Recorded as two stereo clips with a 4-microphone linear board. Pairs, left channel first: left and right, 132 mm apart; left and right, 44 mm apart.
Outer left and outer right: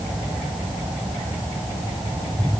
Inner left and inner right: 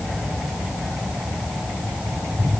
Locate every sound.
Only background noise.